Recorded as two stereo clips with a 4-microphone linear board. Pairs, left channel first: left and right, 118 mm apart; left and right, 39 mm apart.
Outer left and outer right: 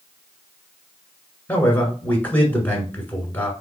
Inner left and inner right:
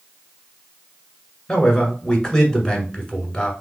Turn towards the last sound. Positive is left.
turn(degrees=15)  # may be behind; listen again after turning